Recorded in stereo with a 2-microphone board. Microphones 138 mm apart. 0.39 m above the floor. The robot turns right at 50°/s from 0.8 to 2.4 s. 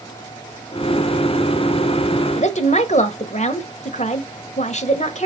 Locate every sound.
2.4 s a woman speaking: 55° left (ahead or behind), 1.3 m